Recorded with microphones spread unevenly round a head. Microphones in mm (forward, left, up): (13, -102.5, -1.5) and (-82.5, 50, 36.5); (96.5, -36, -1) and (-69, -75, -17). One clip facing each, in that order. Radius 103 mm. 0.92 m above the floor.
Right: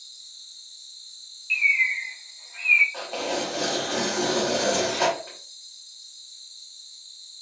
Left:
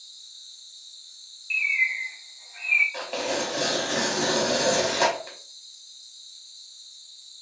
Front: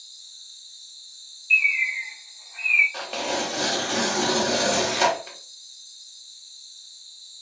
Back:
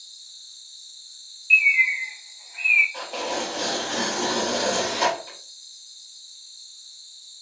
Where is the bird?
100° right, 1.3 m.